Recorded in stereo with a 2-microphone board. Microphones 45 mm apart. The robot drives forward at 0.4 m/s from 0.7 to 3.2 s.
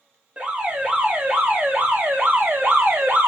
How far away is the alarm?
About 1.4 m.